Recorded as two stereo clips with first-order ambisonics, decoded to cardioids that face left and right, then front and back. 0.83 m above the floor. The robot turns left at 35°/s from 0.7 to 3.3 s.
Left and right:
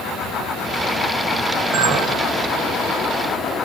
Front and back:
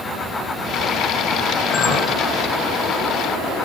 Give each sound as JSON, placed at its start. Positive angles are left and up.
{"t": 1.7, "sound": "a clink", "azimuth_deg": -50, "distance_m": 2.5}